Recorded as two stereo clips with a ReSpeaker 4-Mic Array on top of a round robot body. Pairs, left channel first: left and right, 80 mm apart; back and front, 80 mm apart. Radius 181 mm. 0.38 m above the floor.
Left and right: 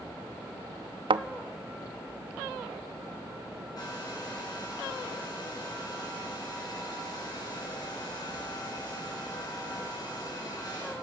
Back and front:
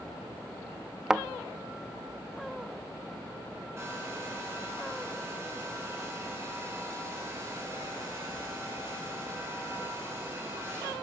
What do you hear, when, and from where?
1.1 s a thud: 85° right, 0.6 m
3.8 s a hair dryer: 55° left, 7 m